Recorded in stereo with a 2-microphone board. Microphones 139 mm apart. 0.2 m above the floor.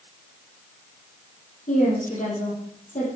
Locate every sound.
1.7 s a woman speaking: 65° left (ahead or behind), 7 m